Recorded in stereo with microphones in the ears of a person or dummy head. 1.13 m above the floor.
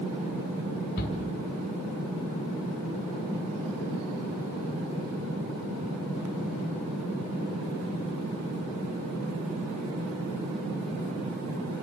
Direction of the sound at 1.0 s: 60° left (ahead or behind).